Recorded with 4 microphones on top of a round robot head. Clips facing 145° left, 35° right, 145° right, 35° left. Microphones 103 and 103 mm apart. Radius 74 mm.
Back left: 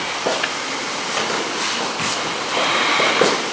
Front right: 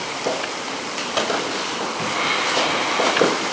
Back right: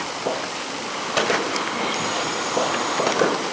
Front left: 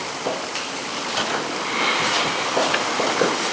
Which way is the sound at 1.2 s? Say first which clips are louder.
Front right 1 dB, back right 4 dB; 105° right.